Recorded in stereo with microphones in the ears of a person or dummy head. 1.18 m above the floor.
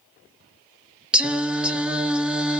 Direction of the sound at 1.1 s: Centre (ahead or behind).